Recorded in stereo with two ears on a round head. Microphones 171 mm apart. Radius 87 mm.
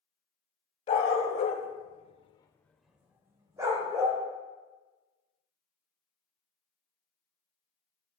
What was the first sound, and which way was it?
A dog barking, 35° left (ahead or behind).